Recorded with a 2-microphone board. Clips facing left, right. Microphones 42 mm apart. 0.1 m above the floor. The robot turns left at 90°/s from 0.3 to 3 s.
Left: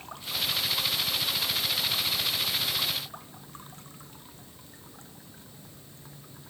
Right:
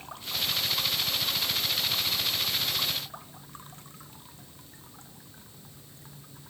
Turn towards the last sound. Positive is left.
No sound to turn to.